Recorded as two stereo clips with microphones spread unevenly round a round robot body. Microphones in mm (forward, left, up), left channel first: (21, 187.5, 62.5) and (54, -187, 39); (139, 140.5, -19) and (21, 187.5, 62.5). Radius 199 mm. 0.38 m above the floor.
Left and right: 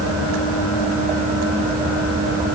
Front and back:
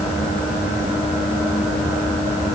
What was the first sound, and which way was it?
Only background noise.